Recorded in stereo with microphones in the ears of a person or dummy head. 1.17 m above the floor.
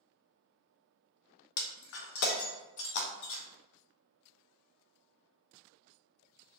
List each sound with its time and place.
1.6 s breaking glass: 70° left (ahead or behind), 0.5 m